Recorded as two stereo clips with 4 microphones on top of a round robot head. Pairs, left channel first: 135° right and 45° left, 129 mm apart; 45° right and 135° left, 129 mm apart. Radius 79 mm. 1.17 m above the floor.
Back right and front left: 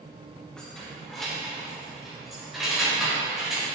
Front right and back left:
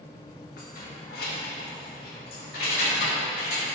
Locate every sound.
0.6 s keys jangling: 50° right, 2 m; by 3.7 s 45° right, 5.5 m